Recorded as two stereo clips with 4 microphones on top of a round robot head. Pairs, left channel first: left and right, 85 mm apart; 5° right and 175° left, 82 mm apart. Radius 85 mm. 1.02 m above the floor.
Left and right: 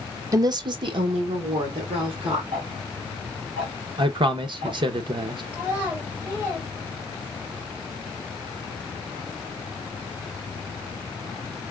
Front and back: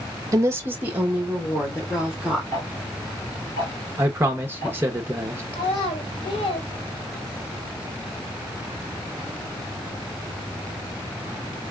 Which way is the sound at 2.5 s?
75° right.